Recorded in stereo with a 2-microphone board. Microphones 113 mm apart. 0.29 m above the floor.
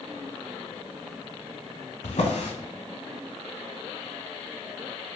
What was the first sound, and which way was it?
A drawer, 75° left (ahead or behind).